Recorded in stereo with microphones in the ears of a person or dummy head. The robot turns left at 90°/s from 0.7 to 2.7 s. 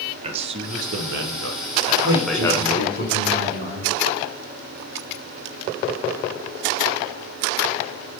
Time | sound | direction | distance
0.2 | a man speaking | 40° right | 1.1 m
2.0 | a man speaking | 90° right | 4.5 m